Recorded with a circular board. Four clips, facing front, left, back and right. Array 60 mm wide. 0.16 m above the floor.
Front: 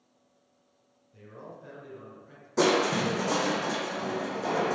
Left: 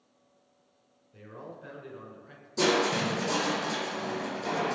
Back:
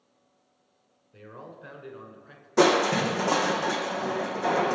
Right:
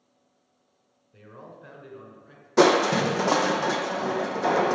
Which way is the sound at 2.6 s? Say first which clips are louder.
Right 7 dB, back 3 dB; 110° right.